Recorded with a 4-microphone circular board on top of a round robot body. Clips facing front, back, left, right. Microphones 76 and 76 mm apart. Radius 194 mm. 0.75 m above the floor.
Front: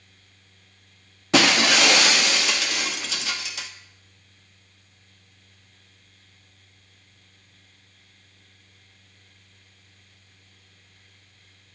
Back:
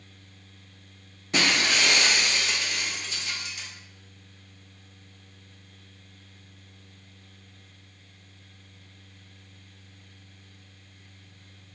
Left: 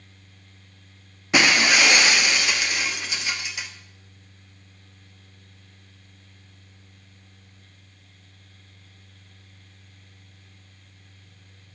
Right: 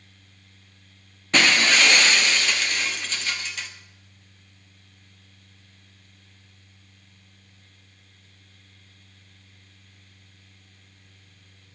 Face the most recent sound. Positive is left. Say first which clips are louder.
# front 6 dB, left 1 dB
turn(degrees=10)